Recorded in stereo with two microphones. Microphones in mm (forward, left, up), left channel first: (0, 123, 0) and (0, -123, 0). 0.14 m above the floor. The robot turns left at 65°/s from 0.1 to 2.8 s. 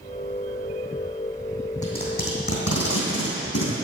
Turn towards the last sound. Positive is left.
turn(degrees=80)